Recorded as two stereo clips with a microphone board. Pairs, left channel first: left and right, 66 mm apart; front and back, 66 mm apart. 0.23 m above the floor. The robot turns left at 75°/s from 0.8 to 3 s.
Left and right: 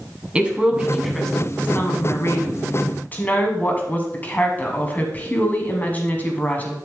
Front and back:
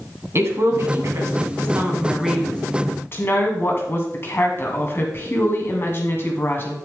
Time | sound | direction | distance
0.3 | a woman speaking | 155° right | 1.9 m